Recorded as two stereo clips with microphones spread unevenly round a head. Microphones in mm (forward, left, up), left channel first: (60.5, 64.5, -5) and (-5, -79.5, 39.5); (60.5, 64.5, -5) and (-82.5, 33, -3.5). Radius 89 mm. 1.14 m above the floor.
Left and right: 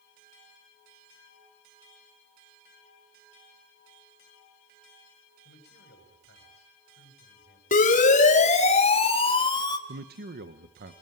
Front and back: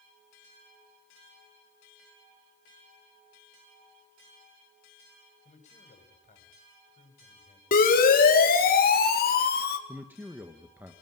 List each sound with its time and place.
5.5 s a man speaking: 55° left, 6.5 m
7.7 s a siren: 35° left, 4.5 m; by 9.8 s 5° left, 3 m
9.9 s a man speaking: 90° right, 1.2 m